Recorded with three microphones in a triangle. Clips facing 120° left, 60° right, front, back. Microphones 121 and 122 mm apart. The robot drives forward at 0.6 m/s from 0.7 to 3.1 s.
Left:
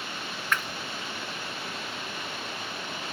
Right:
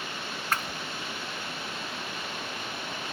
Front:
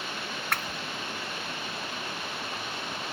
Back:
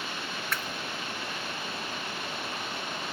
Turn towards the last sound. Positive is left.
turn(degrees=-130)